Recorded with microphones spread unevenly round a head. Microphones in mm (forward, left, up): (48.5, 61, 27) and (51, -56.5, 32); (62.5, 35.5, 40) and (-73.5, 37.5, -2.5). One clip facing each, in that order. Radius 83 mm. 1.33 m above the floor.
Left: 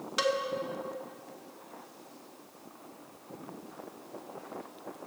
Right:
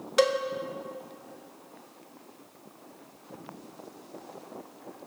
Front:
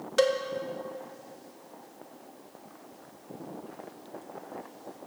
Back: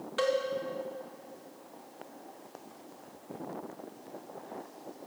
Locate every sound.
0.2 s a cowbell: 55° right, 1.1 m